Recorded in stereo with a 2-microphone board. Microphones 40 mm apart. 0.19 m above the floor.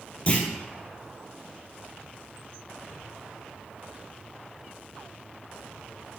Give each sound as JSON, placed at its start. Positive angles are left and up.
{"t": 0.3, "sound": "a clunk", "side_deg": 30, "distance_m": 1.2}